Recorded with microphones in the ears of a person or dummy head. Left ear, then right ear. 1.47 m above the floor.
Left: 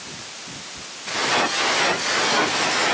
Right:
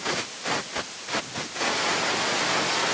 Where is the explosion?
No explosion in this recording.